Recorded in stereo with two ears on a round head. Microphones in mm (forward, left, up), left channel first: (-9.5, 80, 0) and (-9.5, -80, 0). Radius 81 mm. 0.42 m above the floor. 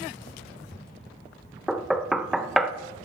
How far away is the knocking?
About 0.6 m.